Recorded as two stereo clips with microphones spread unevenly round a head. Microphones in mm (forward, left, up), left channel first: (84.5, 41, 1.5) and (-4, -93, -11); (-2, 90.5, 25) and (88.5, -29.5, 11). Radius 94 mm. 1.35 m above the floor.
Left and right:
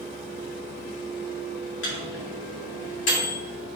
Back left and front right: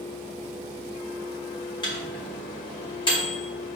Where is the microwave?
70° left, 3 m.